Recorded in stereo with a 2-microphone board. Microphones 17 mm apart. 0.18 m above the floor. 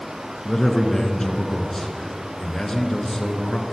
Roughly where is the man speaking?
Left.